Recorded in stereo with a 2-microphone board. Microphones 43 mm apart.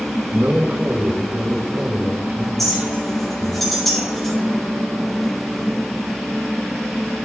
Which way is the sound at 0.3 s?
45° right (ahead or behind).